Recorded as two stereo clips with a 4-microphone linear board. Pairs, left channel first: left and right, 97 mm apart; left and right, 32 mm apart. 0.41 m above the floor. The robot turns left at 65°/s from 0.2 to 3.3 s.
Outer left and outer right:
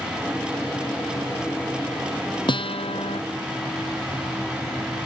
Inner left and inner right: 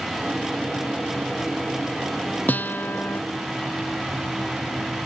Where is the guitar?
125° left; by 3.2 s 80° left.